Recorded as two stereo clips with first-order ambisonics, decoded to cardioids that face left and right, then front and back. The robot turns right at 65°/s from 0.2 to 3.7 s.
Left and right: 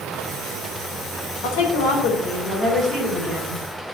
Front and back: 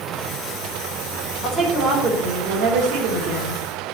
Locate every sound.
1.4 s a woman speaking: 85° left, 3 m; by 3.6 s 135° right, 3 m